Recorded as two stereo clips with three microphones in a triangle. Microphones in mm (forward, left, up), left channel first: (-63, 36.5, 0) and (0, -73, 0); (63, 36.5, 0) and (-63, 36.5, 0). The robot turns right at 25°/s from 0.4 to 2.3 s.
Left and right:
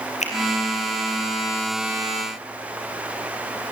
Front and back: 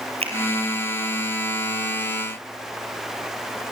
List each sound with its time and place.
0.2 s a finger snap: 145° left, 3.5 m